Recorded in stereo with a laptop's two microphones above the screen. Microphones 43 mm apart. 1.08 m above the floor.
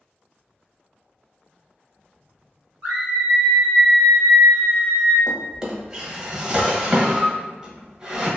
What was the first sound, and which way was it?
A scream, 40° right (ahead or behind).